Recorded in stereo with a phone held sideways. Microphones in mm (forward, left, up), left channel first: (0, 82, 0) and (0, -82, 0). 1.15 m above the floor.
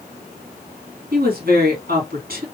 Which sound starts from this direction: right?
A woman speaking, at 1.1 s.